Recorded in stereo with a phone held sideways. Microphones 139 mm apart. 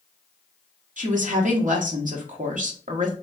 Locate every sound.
1.0 s a woman speaking: 70° right (ahead or behind), 1.1 m